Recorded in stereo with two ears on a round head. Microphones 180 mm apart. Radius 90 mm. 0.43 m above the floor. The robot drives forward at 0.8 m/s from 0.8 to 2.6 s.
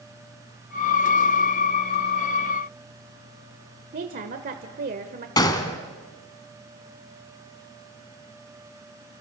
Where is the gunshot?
20° left (ahead or behind), 1.8 m.